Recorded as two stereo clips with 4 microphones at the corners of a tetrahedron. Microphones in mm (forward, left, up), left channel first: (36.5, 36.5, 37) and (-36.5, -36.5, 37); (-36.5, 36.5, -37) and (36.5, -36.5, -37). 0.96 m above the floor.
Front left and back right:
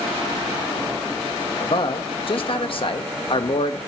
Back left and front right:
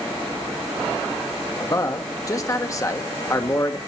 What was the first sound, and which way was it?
A man speaking, 75° left.